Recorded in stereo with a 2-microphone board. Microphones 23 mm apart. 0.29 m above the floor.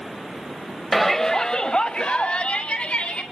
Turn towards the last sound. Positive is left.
turn(degrees=65)  # may be behind; listen again after turning